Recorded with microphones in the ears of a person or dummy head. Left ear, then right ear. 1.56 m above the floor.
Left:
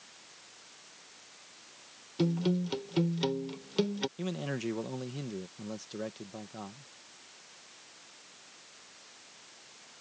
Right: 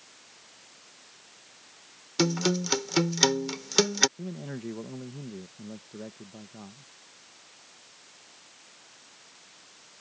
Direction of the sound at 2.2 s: 60° right (ahead or behind).